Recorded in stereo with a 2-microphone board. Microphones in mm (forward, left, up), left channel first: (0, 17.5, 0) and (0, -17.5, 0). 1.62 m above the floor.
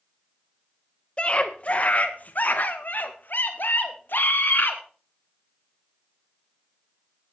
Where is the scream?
35° left (ahead or behind), 1.6 m; by 4.8 s 75° left (ahead or behind), 3 m.